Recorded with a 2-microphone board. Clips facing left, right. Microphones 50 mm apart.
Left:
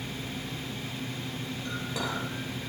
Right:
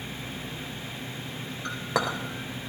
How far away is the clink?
About 2.5 m.